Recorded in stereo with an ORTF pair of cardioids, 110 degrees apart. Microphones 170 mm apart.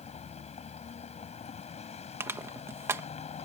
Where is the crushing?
15° right.